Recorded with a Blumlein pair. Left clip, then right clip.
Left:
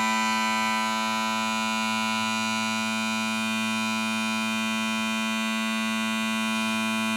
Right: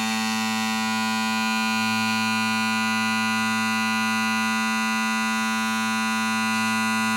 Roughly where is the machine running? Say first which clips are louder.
Left 1 dB; ahead right.